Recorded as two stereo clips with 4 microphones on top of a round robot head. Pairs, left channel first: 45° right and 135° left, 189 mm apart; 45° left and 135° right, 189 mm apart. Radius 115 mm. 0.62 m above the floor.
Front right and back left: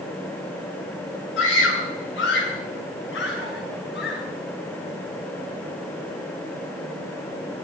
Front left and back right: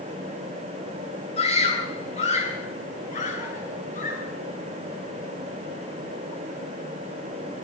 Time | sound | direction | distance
1.4 | a scream | 15° right | 8 m